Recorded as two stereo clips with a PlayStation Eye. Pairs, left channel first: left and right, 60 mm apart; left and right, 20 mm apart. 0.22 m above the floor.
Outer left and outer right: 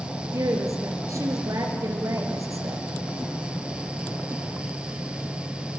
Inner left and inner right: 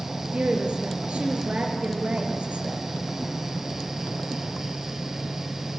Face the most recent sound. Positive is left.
turn(degrees=-60)  # may be behind; listen again after turning